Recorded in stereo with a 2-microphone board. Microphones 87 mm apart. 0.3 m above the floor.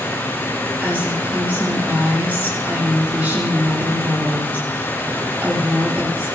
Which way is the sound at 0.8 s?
20° right (ahead or behind).